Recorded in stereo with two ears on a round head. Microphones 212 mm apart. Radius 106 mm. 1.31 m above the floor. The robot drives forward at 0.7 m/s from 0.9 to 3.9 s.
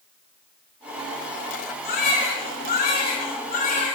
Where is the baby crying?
45° left (ahead or behind), 6 m; by 4.0 s 35° left (ahead or behind), 7 m.